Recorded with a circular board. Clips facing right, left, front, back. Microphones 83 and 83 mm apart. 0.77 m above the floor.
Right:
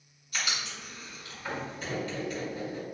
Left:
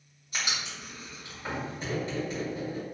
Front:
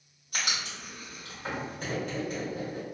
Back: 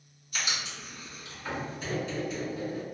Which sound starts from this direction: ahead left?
Writing, at 0.3 s.